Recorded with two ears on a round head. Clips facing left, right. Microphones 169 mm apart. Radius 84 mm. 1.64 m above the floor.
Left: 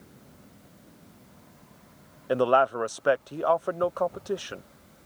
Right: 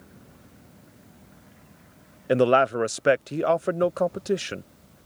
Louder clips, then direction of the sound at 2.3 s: Right 3 dB; 25° right (ahead or behind).